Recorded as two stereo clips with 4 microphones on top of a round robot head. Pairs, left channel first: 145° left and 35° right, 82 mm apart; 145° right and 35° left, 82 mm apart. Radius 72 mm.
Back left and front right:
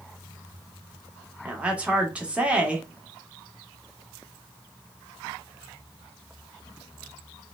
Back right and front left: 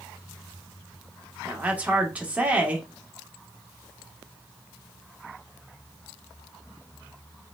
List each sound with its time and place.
1.4 s a woman speaking: 5° left, 1.1 m